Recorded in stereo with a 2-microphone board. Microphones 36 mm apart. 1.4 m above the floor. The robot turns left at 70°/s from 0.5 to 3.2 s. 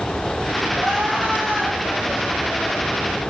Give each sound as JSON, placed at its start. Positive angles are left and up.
{"t": 0.7, "sound": "crying", "azimuth_deg": -95, "distance_m": 3.0}